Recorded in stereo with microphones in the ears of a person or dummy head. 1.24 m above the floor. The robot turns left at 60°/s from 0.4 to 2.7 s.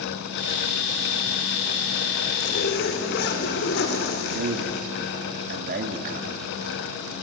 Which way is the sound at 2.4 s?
35° left (ahead or behind).